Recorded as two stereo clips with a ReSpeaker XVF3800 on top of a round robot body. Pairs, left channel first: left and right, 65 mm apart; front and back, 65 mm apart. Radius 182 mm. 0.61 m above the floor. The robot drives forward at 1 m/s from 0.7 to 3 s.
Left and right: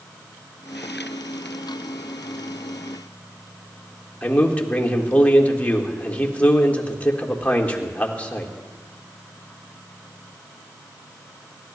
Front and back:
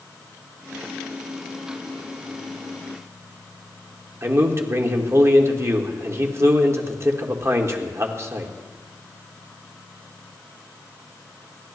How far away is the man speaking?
About 1.7 m.